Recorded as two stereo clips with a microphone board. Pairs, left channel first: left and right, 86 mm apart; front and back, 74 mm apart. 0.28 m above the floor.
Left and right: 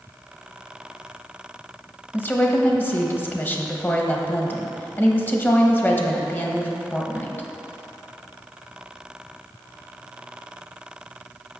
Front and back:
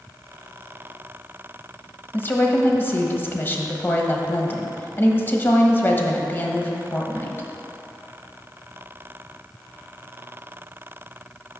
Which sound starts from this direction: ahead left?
A woman speaking, at 2.1 s.